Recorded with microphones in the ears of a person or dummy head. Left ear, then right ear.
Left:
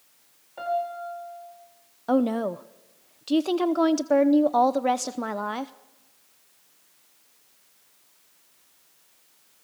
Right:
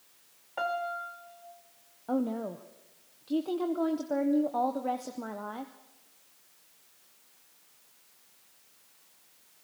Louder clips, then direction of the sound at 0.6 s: Left 4 dB; 45° right (ahead or behind).